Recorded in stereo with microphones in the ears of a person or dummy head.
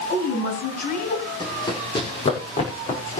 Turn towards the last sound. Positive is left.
turn(degrees=40)  # may be behind; listen again after turning